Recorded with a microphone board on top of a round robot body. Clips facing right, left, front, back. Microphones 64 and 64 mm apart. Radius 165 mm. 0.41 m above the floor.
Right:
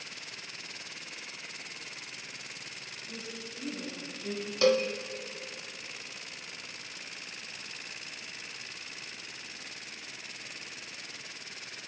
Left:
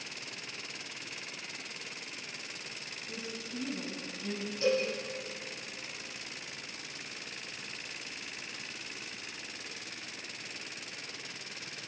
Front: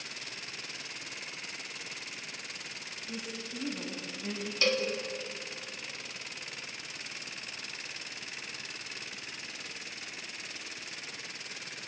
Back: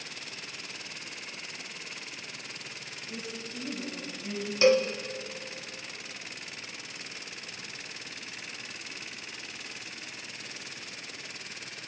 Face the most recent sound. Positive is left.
turn(degrees=-110)